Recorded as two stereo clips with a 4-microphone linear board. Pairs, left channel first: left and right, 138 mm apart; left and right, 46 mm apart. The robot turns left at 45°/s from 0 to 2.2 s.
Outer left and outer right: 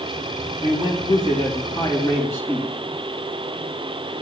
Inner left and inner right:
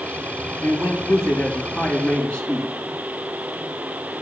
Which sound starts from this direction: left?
A man speaking, at 0.6 s.